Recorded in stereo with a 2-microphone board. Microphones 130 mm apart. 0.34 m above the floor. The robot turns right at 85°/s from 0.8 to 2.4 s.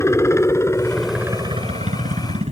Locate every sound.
0.0 s a helicopter: 160° left; by 2.5 s 65° right